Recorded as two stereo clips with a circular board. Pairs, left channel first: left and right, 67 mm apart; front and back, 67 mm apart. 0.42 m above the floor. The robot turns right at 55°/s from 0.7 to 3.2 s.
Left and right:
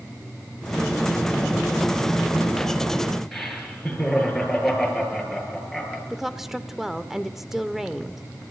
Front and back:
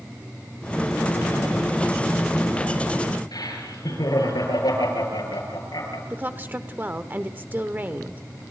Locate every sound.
3.3 s laughter: straight ahead, 7.5 m
6.1 s a woman speaking: 170° right, 0.8 m